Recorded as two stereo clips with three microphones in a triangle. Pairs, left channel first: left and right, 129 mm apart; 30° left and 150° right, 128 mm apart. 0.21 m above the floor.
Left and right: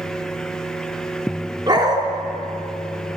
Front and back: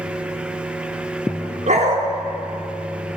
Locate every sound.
1.7 s a dog barking: 145° right, 1.0 m